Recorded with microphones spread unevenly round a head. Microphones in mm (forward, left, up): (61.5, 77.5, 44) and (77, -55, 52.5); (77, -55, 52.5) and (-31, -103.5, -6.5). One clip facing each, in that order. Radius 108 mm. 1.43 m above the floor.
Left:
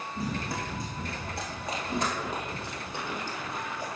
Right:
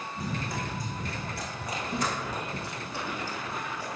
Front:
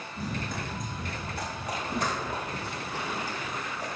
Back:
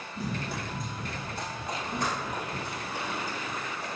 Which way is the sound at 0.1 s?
80° left.